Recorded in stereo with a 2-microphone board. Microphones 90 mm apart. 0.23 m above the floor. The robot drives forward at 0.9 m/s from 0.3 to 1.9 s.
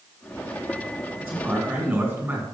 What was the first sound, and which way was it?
A man speaking, 20° right (ahead or behind).